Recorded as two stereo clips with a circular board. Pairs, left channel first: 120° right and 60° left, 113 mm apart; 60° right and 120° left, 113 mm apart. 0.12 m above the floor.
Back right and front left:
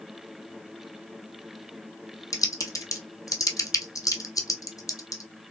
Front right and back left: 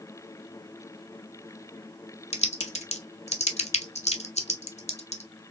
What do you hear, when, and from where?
2.3 s typing on a keyboard: 60° right, 0.9 m